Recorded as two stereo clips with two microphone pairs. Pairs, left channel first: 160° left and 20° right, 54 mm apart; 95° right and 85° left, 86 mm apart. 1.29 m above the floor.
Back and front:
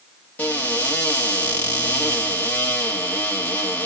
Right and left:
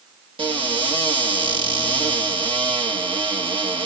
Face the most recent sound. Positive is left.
turn(degrees=95)